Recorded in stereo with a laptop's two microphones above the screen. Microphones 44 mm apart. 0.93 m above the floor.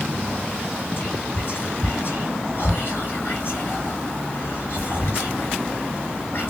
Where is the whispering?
55° left (ahead or behind), 3.5 m.